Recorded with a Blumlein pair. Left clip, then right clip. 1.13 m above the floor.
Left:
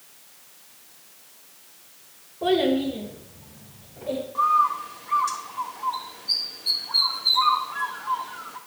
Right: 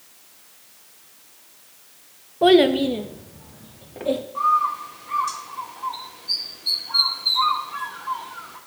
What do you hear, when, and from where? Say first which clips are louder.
2.4 s a child speaking: right 7 dB; 25° right, 0.6 m; by 4.2 s 40° right, 1.6 m
4.3 s a bird: left 1 dB; 5° left, 1.5 m